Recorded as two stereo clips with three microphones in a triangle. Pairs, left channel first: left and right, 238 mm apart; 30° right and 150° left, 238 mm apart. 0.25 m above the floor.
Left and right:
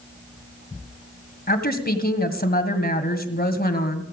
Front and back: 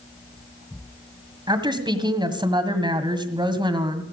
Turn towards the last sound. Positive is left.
turn(degrees=90)